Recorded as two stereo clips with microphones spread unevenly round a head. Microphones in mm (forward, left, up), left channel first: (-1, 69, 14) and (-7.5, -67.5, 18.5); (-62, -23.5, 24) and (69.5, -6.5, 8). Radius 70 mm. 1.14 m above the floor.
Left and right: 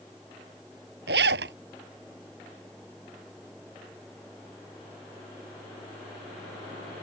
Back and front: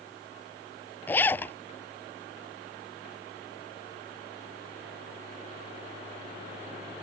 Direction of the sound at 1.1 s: 100° right.